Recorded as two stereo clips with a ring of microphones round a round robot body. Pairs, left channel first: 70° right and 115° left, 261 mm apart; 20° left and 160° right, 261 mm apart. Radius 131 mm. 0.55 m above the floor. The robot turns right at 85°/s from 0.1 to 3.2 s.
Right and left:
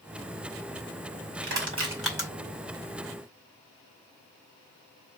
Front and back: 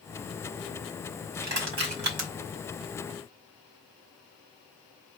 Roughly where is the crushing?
Behind left.